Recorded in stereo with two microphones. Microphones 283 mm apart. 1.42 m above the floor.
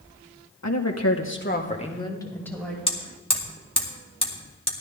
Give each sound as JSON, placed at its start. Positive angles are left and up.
{"t": 0.6, "sound": "a woman speaking", "side_deg": 75, "distance_m": 1.6}
{"t": 2.9, "sound": "hammering", "side_deg": 20, "distance_m": 2.0}